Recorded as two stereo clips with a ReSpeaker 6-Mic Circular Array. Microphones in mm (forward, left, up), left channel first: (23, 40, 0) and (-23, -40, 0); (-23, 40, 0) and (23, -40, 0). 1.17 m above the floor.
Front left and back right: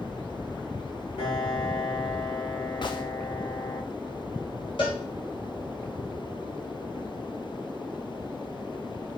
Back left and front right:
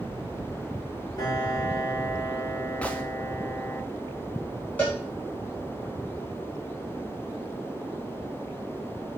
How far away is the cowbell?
About 1.7 m.